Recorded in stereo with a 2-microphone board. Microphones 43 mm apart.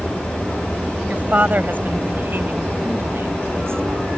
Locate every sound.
1.1 s a woman speaking: 35° right (ahead or behind); by 4.1 s 65° right (ahead or behind)